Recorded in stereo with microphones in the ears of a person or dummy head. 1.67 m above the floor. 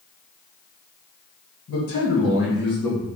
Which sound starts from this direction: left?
A man speaking, at 1.7 s.